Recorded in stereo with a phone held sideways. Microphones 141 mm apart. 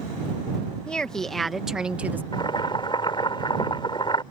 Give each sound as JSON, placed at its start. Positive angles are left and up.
{"t": 0.9, "sound": "a woman speaking", "side_deg": 5}
{"t": 2.3, "sound": "boiling", "side_deg": 35}